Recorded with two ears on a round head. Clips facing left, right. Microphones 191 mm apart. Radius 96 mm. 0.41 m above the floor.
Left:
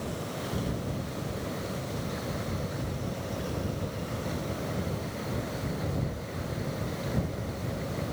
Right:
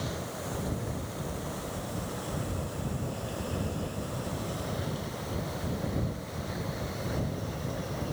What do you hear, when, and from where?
Only background noise.